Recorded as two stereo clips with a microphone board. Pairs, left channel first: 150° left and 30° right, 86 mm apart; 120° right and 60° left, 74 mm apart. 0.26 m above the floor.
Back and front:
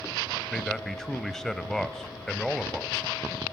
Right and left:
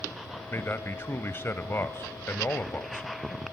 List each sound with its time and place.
0.5 s a man speaking: 130° right, 1.2 m